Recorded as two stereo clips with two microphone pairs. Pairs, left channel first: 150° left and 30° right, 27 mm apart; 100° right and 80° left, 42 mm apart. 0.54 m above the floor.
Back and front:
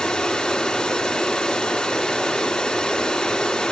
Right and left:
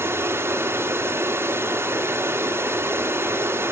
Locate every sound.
0.0 s running water: 90° left, 2.5 m